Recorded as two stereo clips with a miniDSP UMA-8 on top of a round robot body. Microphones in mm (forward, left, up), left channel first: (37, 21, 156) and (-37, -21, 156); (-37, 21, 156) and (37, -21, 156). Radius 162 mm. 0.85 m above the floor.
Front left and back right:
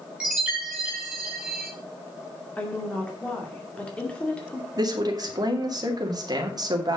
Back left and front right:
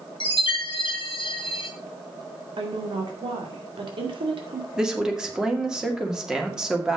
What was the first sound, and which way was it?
A chime, 130° left.